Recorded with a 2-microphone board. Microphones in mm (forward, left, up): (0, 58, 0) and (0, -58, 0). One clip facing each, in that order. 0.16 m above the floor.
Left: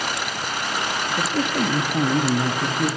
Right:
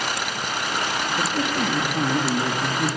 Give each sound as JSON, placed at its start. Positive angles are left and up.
{"t": 1.1, "sound": "a man speaking", "side_deg": 60, "distance_m": 3.0}